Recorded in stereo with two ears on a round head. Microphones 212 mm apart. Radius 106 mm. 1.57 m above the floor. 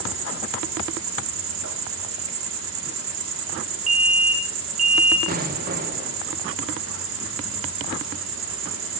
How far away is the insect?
About 1.2 m.